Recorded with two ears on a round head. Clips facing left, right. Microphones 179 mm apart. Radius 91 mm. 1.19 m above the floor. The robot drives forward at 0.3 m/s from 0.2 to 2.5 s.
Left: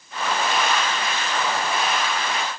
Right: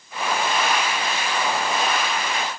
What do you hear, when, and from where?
Only background noise.